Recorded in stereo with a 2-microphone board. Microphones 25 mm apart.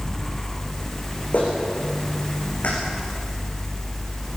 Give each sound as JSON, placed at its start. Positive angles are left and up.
{"t": 1.3, "sound": "a clap", "side_deg": 75, "distance_m": 8.0}